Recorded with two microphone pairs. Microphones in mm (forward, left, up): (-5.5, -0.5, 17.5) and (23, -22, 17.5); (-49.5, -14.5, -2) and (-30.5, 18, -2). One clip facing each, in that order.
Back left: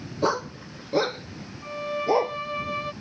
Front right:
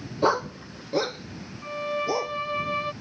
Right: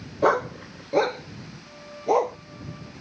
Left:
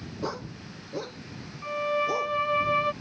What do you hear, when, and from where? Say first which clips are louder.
0.2 s a dog barking: front right 2 dB, right 14 dB; 110° right; by 2.4 s 155° right
1.6 s a violin: back left 1 dB, left 2 dB; 45° left